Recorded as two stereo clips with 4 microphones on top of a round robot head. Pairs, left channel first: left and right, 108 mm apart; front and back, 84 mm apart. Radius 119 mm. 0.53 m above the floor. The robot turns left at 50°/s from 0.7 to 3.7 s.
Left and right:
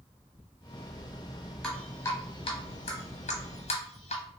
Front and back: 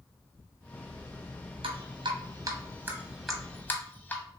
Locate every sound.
1.6 s dripping: 175° left, 0.9 m; by 4.2 s 75° left, 0.9 m